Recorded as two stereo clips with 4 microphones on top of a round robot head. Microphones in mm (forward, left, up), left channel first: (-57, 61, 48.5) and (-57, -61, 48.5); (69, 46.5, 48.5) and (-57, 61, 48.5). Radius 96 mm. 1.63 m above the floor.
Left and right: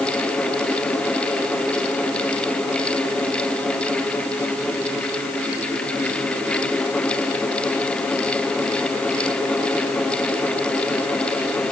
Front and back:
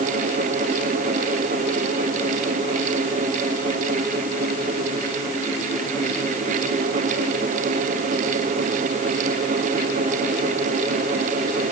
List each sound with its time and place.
Only background noise.